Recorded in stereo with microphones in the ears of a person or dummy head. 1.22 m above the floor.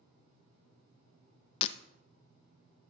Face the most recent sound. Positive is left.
turn(degrees=40)  # may be behind; listen again after turning